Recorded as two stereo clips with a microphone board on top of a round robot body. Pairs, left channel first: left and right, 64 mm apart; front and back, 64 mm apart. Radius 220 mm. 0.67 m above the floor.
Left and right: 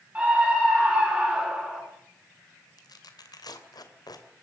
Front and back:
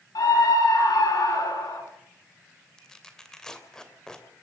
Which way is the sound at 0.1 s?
15° right.